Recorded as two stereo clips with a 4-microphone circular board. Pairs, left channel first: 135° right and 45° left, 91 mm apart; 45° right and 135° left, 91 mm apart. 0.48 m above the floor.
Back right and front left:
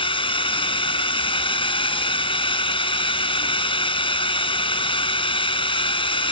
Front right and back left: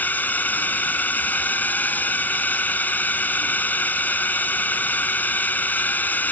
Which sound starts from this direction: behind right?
A drone, at 0.0 s.